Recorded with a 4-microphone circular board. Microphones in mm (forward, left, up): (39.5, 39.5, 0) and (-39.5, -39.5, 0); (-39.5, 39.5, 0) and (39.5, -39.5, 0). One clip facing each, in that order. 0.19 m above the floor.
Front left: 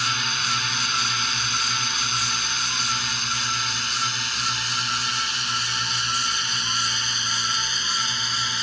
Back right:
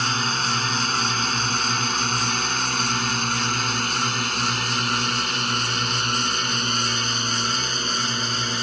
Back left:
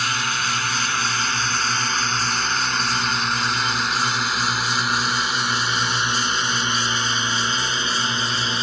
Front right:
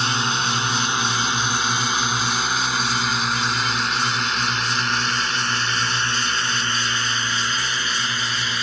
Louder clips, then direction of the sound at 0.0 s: Back right 4 dB, front right 2 dB; 100° right.